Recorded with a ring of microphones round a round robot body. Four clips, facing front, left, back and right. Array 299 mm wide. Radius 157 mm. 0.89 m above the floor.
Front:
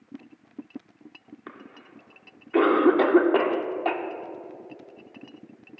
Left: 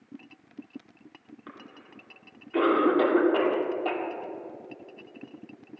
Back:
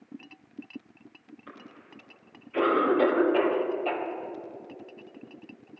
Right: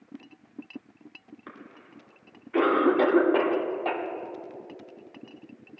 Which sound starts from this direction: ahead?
A cough, at 1.5 s.